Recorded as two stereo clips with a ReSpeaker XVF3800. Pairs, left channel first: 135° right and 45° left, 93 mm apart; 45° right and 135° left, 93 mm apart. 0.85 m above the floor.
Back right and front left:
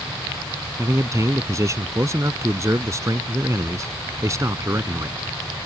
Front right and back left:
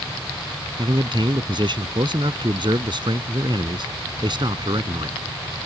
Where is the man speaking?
100° left.